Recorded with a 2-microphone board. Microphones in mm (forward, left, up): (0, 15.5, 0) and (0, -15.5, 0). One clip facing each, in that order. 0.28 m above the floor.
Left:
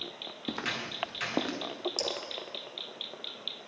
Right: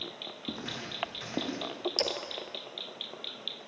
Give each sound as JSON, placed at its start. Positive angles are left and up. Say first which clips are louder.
{"t": 0.5, "sound": "footsteps", "louder": "left 5 dB", "side_deg": 60, "distance_m": 3.0}
{"t": 2.0, "sound": "a splash", "louder": "right 4 dB", "side_deg": -40, "distance_m": 2.5}